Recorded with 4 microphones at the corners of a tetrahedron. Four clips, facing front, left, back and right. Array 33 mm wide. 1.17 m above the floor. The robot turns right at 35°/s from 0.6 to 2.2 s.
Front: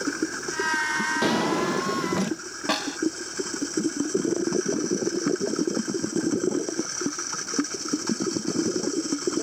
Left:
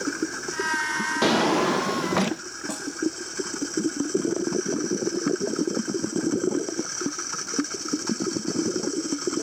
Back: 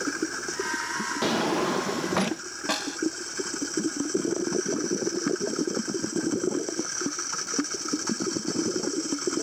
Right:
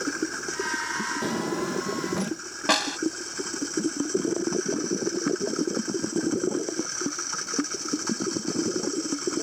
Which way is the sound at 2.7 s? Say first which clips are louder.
Right 12 dB, front 3 dB; 75° right.